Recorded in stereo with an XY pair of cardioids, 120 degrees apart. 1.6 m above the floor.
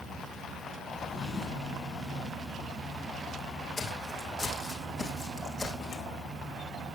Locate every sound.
0.9 s a drawer: 45° left, 7 m
3.8 s footsteps: 35° left, 5.5 m